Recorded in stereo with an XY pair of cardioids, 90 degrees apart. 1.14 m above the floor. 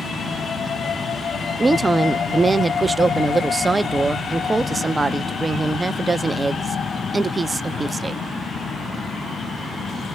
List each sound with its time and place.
1.6 s a woman speaking: 25° right, 0.6 m